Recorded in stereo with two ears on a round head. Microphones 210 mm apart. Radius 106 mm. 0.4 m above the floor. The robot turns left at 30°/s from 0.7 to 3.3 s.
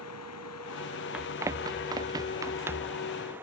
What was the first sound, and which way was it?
Running water, 70° left.